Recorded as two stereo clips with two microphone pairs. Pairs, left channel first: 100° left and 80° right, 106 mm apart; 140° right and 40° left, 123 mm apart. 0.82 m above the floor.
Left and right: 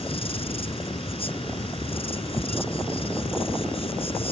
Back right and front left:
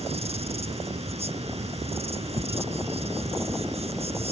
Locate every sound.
0.0 s an insect: 75° left